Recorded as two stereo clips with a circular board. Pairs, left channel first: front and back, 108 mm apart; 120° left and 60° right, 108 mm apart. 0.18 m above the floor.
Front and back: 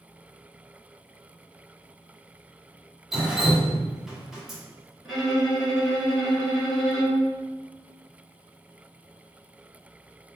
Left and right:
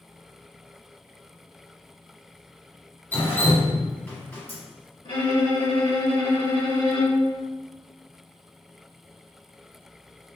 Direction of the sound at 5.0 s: 90° left.